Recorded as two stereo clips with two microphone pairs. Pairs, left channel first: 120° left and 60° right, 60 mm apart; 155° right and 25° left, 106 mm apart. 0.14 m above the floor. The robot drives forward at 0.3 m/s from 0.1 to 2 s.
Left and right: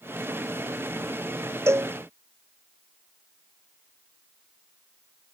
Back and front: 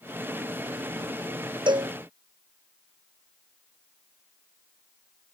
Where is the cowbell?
15° right.